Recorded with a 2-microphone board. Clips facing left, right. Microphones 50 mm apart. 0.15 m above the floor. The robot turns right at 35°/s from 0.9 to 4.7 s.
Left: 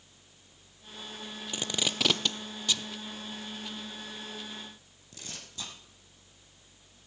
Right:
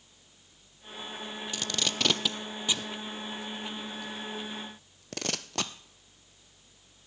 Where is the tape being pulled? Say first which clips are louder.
Left 1 dB; 20° left (ahead or behind), 0.6 m; by 5.7 s 85° right, 0.6 m.